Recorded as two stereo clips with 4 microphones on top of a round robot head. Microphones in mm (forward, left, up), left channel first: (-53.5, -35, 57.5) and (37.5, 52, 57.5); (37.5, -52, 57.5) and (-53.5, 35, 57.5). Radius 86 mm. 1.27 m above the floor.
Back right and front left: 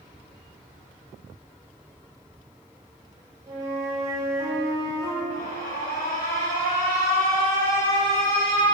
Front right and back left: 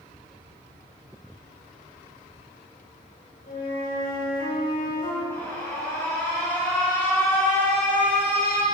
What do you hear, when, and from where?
3.5 s a flute: 20° right, 6 m
5.3 s an alarm: 115° right, 7.5 m